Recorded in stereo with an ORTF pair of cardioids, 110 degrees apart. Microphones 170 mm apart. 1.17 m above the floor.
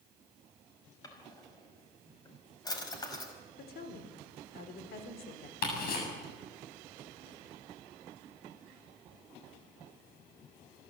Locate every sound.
1.0 s a drawer: 20° left, 4.5 m
3.6 s a woman speaking: 65° left, 4 m
5.6 s ticking: 60° left, 7.5 m